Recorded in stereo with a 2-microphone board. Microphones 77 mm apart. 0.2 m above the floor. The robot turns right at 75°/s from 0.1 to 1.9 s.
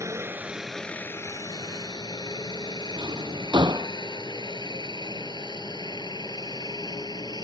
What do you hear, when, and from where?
0.0 s a helicopter: 40° right (ahead or behind); by 7.5 s 65° left (ahead or behind)
3.0 s a drawer: 75° right (ahead or behind)